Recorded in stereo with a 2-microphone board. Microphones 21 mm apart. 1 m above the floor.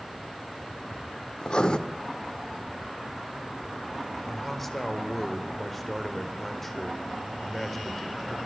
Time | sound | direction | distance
1.4 | writing | 45° left (ahead or behind) | 1.6 m
4.3 | a man speaking | 10° left (ahead or behind) | 4 m